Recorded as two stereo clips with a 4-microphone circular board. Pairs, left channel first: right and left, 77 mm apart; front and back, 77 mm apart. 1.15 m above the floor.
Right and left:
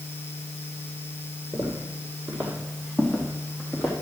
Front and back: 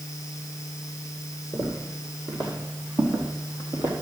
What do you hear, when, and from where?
1.5 s footsteps: 140° left, 3 m; by 3.9 s 175° right, 3.5 m